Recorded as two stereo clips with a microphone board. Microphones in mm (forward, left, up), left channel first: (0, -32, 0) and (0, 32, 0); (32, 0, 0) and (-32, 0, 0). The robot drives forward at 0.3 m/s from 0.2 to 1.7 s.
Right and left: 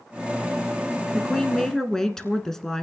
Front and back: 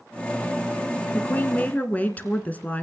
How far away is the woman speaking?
About 1.3 m.